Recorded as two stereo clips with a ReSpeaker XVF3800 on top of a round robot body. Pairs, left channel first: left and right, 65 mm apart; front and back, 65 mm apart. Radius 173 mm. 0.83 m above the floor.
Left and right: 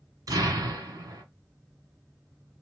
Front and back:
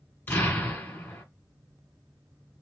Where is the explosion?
60° right, 2 m.